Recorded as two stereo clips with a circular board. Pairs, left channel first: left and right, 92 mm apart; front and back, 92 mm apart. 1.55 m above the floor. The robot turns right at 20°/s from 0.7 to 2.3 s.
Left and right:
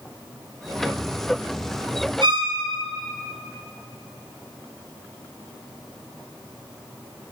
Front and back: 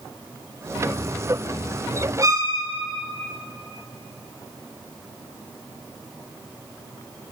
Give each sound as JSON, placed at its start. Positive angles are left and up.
{"t": 2.2, "sound": "a violin", "azimuth_deg": -125, "distance_m": 0.5}